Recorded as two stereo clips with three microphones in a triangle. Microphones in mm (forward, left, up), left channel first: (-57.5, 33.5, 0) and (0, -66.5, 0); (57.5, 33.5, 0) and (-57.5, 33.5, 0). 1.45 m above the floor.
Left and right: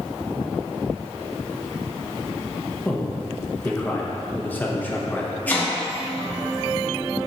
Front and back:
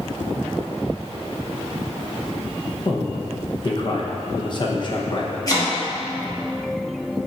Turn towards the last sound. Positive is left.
turn(degrees=50)